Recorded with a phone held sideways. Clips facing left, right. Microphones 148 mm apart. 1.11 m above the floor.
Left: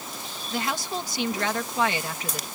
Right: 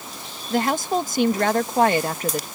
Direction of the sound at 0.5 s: 50° right (ahead or behind).